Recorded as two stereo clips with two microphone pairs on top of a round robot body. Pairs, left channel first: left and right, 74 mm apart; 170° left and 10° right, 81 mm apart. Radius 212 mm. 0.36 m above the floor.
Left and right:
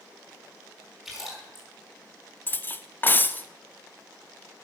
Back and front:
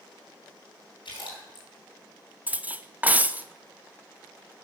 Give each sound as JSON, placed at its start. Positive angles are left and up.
{"t": 1.1, "sound": "a splash", "azimuth_deg": -175, "distance_m": 5.0}
{"t": 2.5, "sound": "cutlery clinking", "azimuth_deg": 40, "distance_m": 0.7}